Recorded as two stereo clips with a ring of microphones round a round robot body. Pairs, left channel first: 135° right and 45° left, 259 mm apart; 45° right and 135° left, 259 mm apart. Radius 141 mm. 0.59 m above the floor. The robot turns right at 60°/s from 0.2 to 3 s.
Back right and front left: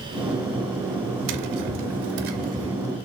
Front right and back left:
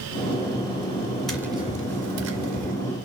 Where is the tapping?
45° left, 2.5 m; by 2.8 s 130° left, 2.5 m.